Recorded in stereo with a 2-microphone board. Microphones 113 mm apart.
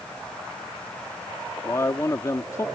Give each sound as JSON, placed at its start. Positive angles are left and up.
{"t": 1.6, "sound": "a man speaking", "side_deg": 25}